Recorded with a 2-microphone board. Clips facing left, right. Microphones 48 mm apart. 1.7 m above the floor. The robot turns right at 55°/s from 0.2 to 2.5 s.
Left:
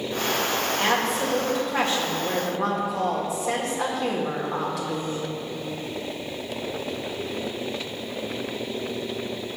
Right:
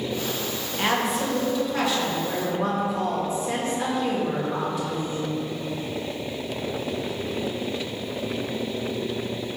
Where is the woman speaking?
20° right, 1.7 m; by 5.3 s 75° left, 1.7 m.